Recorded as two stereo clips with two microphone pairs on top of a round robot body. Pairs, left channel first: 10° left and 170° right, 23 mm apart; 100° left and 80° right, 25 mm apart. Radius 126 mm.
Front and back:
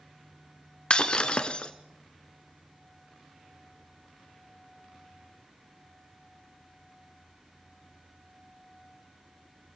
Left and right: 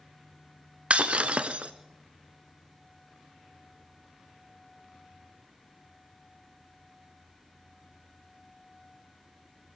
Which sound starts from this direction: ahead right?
Breaking glass, at 0.9 s.